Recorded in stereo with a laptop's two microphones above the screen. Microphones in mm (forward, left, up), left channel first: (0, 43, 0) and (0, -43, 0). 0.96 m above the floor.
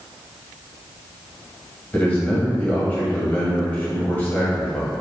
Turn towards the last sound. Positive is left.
turn(degrees=20)  # may be behind; listen again after turning